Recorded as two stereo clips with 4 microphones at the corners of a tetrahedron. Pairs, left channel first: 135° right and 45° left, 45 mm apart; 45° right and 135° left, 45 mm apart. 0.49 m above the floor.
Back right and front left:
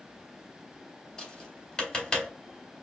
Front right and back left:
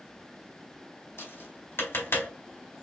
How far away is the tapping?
About 3 m.